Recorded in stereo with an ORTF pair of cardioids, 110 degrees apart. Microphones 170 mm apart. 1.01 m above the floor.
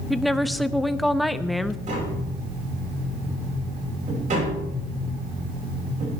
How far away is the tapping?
About 6 m.